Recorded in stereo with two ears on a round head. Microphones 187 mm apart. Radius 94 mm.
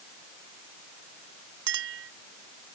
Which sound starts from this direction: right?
A clink, at 1.7 s.